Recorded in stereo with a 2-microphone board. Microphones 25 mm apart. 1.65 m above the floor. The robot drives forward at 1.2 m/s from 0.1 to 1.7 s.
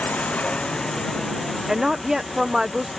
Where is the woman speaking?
20° right (ahead or behind).